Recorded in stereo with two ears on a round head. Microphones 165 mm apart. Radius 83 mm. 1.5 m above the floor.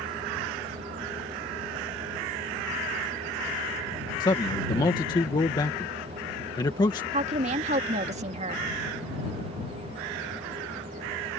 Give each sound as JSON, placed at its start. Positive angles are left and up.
{"t": 4.2, "sound": "a man speaking", "side_deg": 25}
{"t": 7.1, "sound": "a woman speaking", "side_deg": -35}